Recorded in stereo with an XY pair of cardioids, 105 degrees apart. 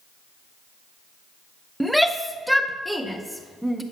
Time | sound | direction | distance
1.8 | a shout | straight ahead | 0.5 m